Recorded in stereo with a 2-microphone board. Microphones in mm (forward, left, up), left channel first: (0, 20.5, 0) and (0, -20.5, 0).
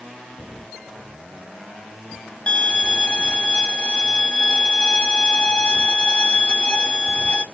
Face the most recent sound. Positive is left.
turn(degrees=30)  # may be behind; listen again after turning